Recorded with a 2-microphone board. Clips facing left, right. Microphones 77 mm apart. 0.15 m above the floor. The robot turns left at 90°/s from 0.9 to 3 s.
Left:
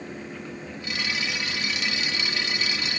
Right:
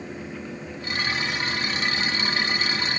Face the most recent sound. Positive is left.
No sound to turn to.